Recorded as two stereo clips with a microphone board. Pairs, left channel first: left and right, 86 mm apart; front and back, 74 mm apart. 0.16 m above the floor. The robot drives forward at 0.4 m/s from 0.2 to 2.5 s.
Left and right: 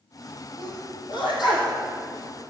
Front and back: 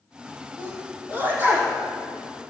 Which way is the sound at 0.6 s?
115° left.